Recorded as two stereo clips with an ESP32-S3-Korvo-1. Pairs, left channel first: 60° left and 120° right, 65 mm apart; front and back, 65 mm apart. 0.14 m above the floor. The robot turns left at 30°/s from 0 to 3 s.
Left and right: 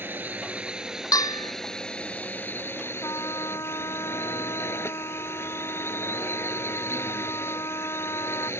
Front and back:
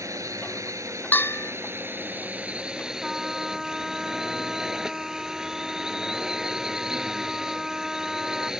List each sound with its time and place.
0.0 s a drone: 170° right; by 8.6 s 100° left
1.1 s a bell: 60° left; by 1.5 s 45° left
3.0 s a trumpet: 90° left